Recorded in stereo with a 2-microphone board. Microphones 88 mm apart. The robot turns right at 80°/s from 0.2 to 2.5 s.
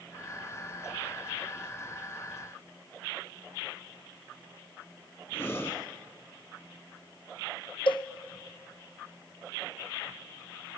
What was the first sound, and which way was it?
Breathing, 30° left (ahead or behind).